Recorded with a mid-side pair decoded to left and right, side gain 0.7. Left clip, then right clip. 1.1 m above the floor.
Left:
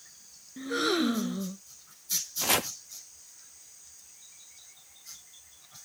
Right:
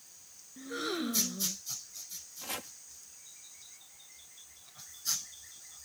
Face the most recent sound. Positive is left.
turn(degrees=50)